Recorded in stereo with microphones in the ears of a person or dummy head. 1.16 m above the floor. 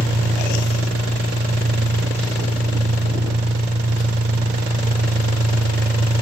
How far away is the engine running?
About 5.5 m.